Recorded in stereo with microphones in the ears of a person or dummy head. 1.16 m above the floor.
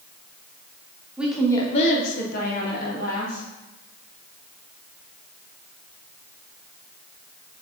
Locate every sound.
1.2 s a woman speaking: 10° right (ahead or behind), 0.7 m; by 3.4 s 45° left (ahead or behind), 1.7 m